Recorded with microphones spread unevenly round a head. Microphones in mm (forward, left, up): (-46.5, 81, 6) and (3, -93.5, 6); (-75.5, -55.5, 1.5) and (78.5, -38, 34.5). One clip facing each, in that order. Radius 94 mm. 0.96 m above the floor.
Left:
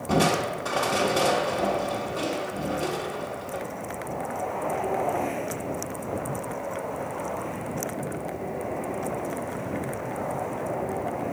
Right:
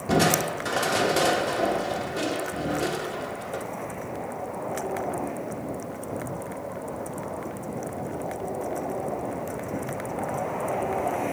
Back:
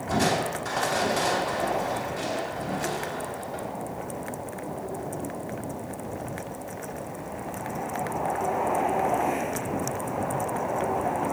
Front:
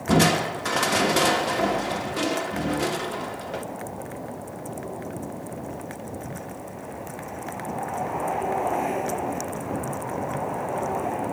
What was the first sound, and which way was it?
Crushing, 5° right.